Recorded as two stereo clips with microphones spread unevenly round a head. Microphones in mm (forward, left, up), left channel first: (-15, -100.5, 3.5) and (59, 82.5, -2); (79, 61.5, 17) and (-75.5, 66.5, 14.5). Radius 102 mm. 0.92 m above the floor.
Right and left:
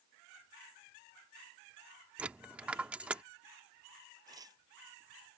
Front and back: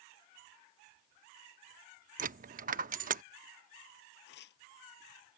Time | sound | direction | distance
2.2 | a dropped coin | 155° left | ?
4.3 | tearing paper | 5° right | ?